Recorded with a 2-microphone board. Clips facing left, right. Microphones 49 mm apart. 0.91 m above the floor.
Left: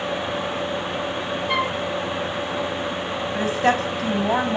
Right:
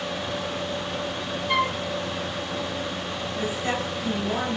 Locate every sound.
1.5 s a flute: centre (ahead or behind), 0.5 m
3.3 s a woman speaking: 75° left (ahead or behind), 5.5 m